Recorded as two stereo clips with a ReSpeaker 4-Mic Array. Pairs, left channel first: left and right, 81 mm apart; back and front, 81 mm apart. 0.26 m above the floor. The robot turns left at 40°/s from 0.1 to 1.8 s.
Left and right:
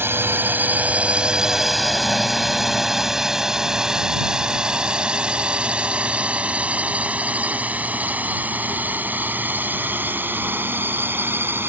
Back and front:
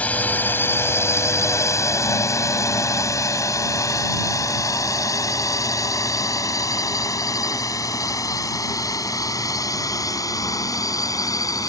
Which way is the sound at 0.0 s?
125° right.